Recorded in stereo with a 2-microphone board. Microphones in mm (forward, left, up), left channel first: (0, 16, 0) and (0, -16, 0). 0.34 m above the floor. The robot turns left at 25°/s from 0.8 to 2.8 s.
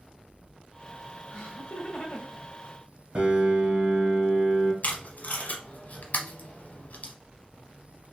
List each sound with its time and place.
1.3 s laughter: 30° left (ahead or behind), 1.5 m; by 2.4 s 45° left (ahead or behind), 1.5 m
3.1 s a piano: 35° right (ahead or behind), 1.9 m
4.8 s tape being pulled: 55° left (ahead or behind), 0.9 m